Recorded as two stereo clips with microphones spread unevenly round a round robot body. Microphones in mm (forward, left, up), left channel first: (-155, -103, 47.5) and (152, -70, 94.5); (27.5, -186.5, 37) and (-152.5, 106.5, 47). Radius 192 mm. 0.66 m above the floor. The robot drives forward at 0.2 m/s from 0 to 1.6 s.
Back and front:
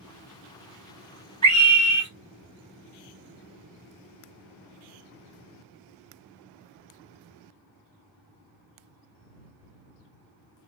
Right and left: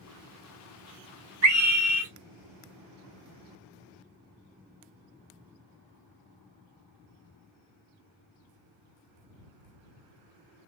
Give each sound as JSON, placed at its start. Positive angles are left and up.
{"t": 1.4, "sound": "a scream", "azimuth_deg": 85, "distance_m": 2.5}